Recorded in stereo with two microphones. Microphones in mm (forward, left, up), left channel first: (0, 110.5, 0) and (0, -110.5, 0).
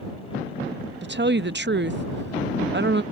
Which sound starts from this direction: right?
A woman speaking, at 1.0 s.